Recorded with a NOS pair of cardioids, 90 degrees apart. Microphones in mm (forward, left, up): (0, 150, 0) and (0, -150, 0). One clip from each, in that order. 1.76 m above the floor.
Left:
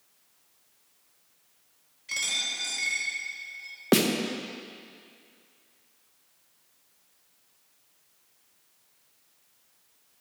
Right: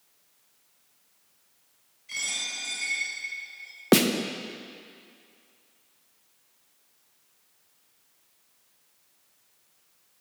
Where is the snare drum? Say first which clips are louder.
Right 2 dB; 15° right, 0.8 m.